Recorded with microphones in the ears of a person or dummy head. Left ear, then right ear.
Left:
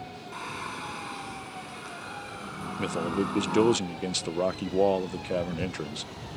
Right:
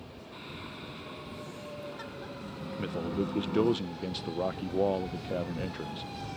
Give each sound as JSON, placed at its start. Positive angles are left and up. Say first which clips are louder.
{"t": 0.3, "sound": "singing", "louder": "left 8 dB", "side_deg": 45}
{"t": 2.8, "sound": "a man speaking", "louder": "left 5 dB", "side_deg": 75}